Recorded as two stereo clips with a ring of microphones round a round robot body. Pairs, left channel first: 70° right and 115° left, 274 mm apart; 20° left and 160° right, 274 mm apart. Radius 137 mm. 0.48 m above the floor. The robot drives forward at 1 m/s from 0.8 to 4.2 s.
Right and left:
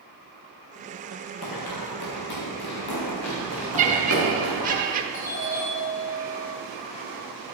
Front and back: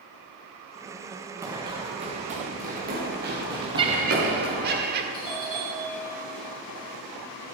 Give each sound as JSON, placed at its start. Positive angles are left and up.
{"t": 1.4, "sound": "running footsteps", "azimuth_deg": -80, "distance_m": 1.7}
{"t": 3.8, "sound": "laughter", "azimuth_deg": 145, "distance_m": 1.0}
{"t": 5.1, "sound": "a doorbell", "azimuth_deg": -50, "distance_m": 3.0}